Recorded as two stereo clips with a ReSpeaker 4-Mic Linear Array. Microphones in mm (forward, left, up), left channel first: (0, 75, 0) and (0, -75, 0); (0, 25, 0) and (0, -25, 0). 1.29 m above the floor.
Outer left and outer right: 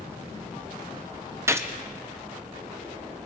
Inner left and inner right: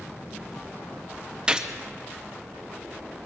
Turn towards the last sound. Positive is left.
turn(degrees=-15)  # may be behind; listen again after turning